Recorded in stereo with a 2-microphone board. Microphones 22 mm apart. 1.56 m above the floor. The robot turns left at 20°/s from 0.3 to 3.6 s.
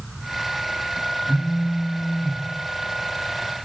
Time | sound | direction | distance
1.2 | a phone buzzing | 40° left (ahead or behind) | 1.2 m